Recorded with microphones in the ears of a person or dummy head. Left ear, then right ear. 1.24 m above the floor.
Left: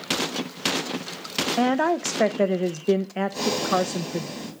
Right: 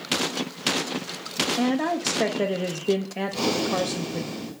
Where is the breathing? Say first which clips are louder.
Left 1 dB; 55° left (ahead or behind), 5 m.